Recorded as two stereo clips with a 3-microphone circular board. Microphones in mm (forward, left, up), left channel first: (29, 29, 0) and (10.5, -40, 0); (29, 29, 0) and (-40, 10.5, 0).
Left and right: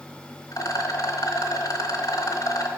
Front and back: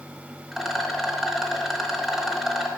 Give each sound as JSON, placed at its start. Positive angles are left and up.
{"t": 0.5, "sound": "a rattle", "azimuth_deg": 110, "distance_m": 1.1}